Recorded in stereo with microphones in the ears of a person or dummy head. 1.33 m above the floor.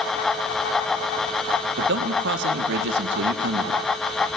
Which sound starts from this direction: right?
A man speaking, at 1.8 s.